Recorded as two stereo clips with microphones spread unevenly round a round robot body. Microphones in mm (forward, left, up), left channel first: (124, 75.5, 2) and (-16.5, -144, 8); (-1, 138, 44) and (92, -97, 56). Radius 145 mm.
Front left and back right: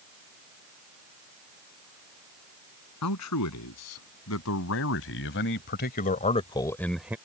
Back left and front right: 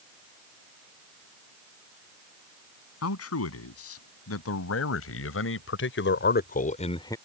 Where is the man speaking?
90° left; by 7.2 s 165° left.